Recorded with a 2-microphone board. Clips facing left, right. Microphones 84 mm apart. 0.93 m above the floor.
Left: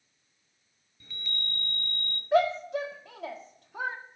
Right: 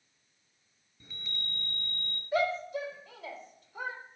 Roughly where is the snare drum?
I don't hear a snare drum.